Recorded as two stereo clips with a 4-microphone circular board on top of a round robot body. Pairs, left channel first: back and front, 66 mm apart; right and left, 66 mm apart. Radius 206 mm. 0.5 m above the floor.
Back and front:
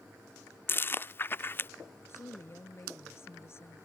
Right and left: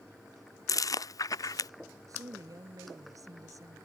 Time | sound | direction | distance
0.7 | chewing | 125° right | ?
2.1 | a woman speaking | 130° left | ?